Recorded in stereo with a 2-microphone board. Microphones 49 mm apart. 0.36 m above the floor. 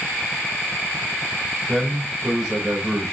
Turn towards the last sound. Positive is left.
turn(degrees=-5)  # may be behind; listen again after turning